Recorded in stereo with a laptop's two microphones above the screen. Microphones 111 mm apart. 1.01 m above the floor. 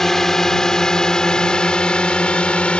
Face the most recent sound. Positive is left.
turn(degrees=10)  # may be behind; listen again after turning